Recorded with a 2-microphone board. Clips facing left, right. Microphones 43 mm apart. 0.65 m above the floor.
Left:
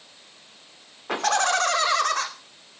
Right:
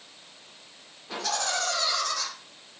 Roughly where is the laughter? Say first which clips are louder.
Left 8 dB; left.